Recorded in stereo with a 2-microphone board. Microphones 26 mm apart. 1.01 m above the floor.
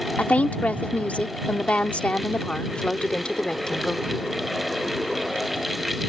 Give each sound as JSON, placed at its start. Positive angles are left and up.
{"t": 0.2, "sound": "a woman speaking", "side_deg": 80}